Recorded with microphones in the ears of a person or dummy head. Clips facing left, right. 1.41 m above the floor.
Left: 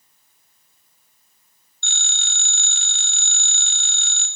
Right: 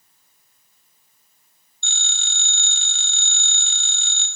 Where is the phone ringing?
50° left (ahead or behind), 3 m.